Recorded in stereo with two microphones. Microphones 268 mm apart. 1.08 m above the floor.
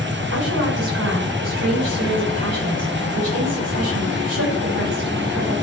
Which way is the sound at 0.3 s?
65° right (ahead or behind).